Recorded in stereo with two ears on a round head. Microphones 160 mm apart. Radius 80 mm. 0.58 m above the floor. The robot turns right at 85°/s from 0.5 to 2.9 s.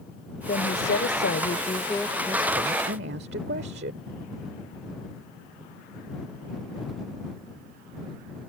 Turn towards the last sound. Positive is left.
turn(degrees=-110)